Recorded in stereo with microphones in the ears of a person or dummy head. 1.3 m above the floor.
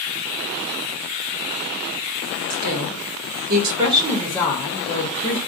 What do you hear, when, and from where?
2.5 s a woman speaking: 70° right (ahead or behind), 1.0 m; by 5.4 s 45° left (ahead or behind), 1.0 m